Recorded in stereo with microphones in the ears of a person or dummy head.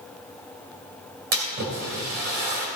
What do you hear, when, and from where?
1.3 s a splash: 50° right (ahead or behind), 2 m